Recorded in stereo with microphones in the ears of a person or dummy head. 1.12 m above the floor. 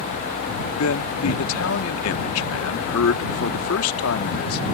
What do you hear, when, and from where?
0.8 s a man speaking: 70° left (ahead or behind)